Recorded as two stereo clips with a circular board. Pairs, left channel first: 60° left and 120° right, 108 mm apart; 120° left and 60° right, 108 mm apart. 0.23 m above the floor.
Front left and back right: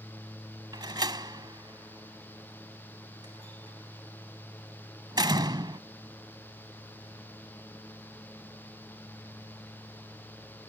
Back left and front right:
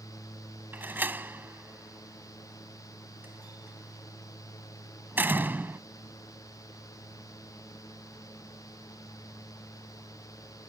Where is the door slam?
120° right.